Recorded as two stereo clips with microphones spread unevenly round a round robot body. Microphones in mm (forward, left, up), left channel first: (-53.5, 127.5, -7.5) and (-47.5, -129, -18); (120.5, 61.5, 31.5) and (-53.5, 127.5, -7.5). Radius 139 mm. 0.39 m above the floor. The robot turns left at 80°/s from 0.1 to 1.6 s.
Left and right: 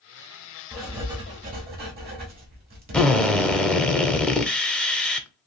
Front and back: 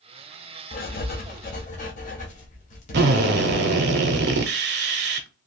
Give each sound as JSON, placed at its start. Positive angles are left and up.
{"t": 0.7, "sound": "writing", "azimuth_deg": 5, "distance_m": 0.9}
{"t": 2.9, "sound": "a drill", "azimuth_deg": 180, "distance_m": 0.5}